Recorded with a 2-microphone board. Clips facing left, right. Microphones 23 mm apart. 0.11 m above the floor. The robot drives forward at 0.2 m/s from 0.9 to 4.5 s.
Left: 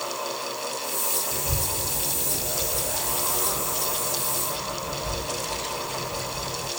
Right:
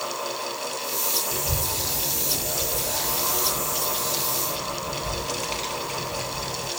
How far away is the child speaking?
About 1.9 m.